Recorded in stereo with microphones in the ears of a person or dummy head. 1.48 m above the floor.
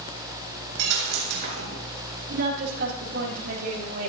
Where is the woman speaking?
60° right (ahead or behind), 3.5 m.